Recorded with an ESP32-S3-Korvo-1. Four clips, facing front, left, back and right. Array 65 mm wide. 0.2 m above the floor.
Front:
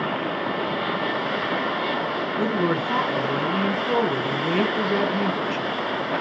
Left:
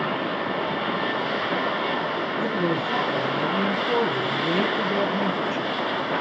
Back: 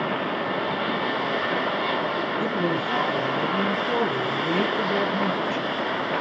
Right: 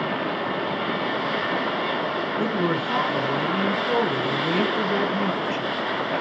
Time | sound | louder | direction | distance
2.4 | a woman speaking | right 1 dB, front 5 dB | 35° right | 2.5 m